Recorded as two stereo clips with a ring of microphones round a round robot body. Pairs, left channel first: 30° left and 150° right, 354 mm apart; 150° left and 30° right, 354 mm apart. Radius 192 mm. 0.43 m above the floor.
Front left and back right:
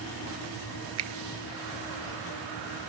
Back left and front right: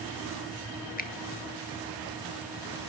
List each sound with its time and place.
1.0 s a finger snap: 155° right, 1.1 m